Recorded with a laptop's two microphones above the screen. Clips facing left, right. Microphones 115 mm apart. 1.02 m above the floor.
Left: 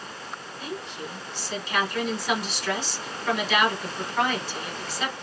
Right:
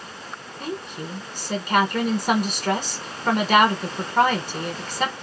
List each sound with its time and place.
0.6 s a woman speaking: 50° right (ahead or behind), 1.1 m